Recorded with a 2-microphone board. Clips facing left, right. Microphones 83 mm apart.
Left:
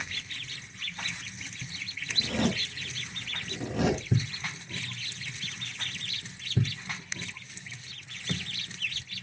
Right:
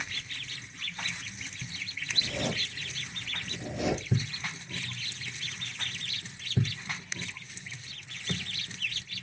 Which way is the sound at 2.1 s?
75° left (ahead or behind).